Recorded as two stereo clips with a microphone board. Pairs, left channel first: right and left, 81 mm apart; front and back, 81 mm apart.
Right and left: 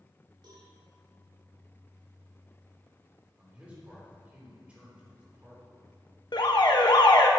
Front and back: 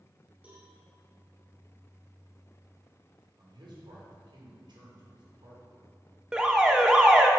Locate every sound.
0.4 s a cowbell: 105° left, 2.5 m
3.4 s a man speaking: 160° left, 3 m
6.3 s an alarm: 100° right, 0.8 m